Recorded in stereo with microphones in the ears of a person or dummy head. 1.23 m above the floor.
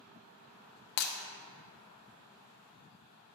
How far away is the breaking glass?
About 0.6 m.